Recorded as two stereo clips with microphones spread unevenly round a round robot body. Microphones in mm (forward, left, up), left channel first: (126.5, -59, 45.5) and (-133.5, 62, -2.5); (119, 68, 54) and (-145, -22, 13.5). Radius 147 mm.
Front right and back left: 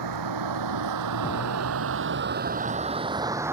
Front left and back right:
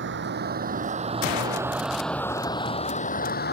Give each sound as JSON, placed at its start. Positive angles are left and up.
{"t": 0.0, "sound": "a vehicle", "azimuth_deg": 155}